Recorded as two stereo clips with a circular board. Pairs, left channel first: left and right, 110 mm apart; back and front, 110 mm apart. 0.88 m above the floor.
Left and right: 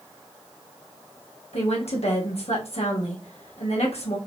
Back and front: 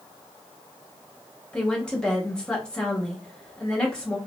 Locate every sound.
1.5 s a woman speaking: 100° left, 1.0 m